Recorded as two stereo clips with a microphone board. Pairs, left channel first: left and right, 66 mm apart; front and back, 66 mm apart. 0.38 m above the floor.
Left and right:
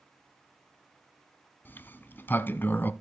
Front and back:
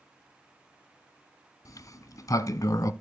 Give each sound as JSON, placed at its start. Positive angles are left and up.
{"t": 1.6, "sound": "a sliding door", "azimuth_deg": 30, "distance_m": 0.8}